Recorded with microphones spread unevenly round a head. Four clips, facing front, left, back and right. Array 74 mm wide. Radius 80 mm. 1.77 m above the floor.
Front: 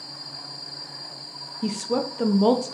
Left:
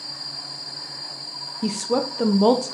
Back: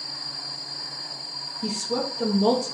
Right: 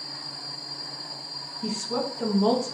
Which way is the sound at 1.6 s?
60° left.